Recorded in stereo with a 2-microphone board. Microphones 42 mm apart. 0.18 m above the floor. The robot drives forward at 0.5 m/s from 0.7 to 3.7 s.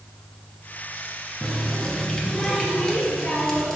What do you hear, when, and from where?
1.4 s a running tap: 20° left (ahead or behind), 1.4 m; by 3.8 s 10° left (ahead or behind), 2.5 m